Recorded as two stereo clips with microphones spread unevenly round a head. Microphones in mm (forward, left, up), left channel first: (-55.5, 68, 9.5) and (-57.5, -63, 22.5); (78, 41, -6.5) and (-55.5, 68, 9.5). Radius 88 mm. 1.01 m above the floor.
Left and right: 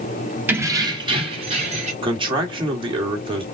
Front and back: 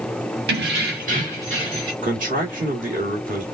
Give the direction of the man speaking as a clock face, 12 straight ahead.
5 o'clock.